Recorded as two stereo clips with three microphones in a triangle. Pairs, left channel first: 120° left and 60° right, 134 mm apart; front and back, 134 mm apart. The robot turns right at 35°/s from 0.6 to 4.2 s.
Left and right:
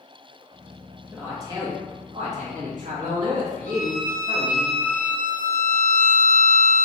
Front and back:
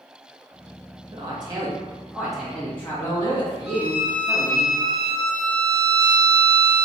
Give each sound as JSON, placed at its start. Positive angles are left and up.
{"t": 1.1, "sound": "a man speaking", "azimuth_deg": -135, "distance_m": 1.4}
{"t": 3.7, "sound": "a violin", "azimuth_deg": 95, "distance_m": 0.6}